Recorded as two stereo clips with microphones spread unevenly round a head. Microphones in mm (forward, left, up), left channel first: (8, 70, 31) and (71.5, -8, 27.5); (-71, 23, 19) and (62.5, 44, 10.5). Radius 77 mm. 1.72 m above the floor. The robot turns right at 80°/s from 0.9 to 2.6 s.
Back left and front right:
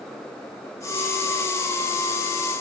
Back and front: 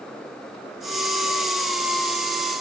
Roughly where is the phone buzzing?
I don't hear a phone buzzing.